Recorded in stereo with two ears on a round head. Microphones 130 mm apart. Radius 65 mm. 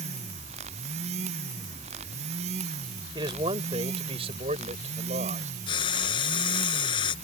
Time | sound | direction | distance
3.1 | a man speaking | 30° right (ahead or behind) | ?
5.7 | frying | 35° left (ahead or behind) | ?